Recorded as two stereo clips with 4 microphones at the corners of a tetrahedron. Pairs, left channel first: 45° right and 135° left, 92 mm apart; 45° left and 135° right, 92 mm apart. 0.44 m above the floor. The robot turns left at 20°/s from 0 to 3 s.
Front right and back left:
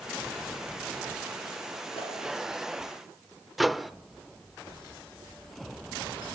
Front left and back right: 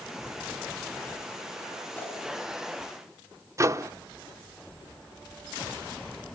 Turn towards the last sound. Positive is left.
turn(degrees=-135)